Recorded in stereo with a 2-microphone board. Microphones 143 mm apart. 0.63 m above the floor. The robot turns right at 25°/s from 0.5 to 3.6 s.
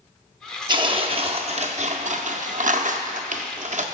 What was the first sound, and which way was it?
Tearing paper, 145° right.